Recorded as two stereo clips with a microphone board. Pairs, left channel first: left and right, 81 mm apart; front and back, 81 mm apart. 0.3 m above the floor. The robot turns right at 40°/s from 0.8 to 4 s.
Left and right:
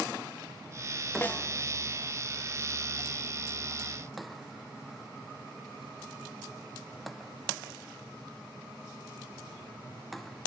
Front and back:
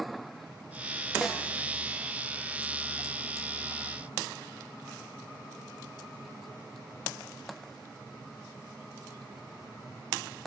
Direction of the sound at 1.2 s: 95° left.